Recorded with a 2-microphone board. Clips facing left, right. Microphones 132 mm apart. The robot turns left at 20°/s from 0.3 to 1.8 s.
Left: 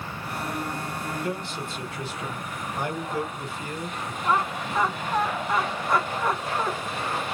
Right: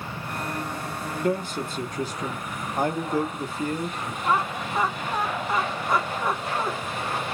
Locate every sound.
1.2 s a man speaking: 45° right (ahead or behind), 1.0 m; by 4.1 s 40° right (ahead or behind), 1.0 m
4.2 s laughter: 10° right (ahead or behind), 1.0 m